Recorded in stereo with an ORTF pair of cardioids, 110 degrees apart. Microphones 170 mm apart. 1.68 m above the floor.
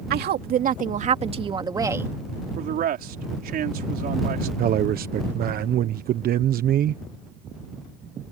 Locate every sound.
0.1 s a woman speaking: 65° right; by 2.1 s 10° right
2.6 s a man speaking: 55° right
4.6 s a man speaking: 55° right